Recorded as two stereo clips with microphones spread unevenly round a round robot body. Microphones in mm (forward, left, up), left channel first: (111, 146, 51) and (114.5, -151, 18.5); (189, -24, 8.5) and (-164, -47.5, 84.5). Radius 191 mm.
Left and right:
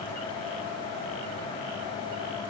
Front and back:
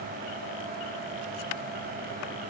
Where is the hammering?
No hammering in this recording.